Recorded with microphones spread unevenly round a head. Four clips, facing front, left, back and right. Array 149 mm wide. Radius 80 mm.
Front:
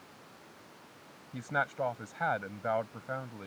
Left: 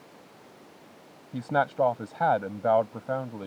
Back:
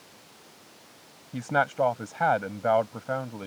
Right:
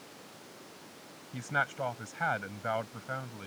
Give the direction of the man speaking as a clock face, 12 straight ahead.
8 o'clock.